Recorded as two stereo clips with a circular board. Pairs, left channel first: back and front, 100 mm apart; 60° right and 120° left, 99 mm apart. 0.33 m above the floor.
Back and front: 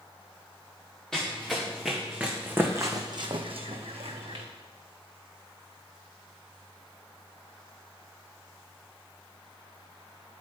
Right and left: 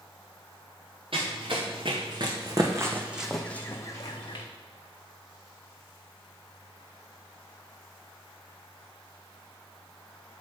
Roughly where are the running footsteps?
Left.